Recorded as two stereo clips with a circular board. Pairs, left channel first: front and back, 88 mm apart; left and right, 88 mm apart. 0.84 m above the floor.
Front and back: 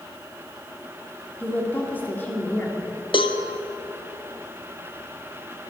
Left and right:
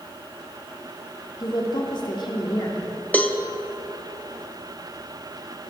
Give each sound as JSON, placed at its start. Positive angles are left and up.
{"t": 1.4, "sound": "a woman speaking", "azimuth_deg": 65, "distance_m": 2.5}
{"t": 3.1, "sound": "a cowbell", "azimuth_deg": 20, "distance_m": 0.8}